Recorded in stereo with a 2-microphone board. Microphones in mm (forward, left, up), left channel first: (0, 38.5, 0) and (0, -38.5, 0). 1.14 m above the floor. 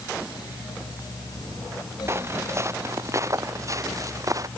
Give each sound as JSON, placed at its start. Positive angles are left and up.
{"t": 2.1, "sound": "footsteps", "side_deg": -35}